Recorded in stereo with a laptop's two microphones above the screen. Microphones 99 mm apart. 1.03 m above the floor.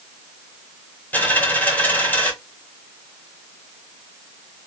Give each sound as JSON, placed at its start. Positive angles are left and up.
{"t": 1.1, "sound": "a dropped coin", "side_deg": 20, "distance_m": 1.3}